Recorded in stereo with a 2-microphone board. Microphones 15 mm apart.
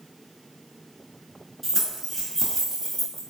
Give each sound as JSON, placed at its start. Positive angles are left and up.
{"t": 1.6, "sound": "keys jangling", "side_deg": 20, "distance_m": 1.5}